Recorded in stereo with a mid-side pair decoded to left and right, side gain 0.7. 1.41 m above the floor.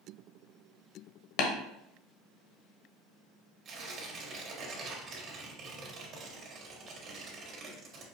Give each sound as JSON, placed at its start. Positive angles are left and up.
{"t": 1.4, "sound": "tapping", "azimuth_deg": 65, "distance_m": 0.9}
{"t": 3.6, "sound": "tearing paper", "azimuth_deg": -45, "distance_m": 1.4}